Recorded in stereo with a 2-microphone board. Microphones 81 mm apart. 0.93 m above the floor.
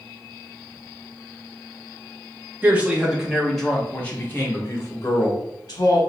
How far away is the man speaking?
About 1.2 m.